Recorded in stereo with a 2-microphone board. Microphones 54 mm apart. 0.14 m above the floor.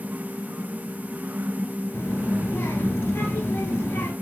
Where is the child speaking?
50° left (ahead or behind), 1.8 m.